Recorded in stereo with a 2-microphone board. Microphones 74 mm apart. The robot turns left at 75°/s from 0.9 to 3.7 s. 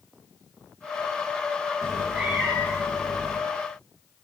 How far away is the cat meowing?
About 1.8 m.